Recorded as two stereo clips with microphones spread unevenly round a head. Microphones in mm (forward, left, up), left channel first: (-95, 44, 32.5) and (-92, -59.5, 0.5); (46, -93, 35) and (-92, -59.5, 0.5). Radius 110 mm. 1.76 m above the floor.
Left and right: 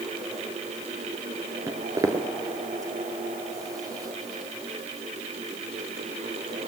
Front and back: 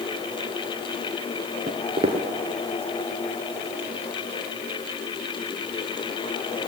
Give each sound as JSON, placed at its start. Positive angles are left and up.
{"t": 1.7, "sound": "footsteps", "azimuth_deg": -150, "distance_m": 1.8}